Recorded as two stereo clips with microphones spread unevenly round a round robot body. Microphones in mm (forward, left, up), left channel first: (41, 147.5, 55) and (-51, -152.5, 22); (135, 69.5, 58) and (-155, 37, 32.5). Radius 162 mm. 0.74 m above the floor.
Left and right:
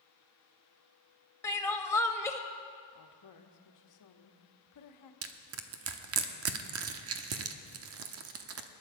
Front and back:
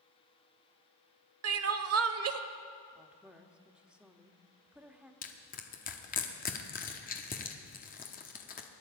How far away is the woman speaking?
About 1.4 m.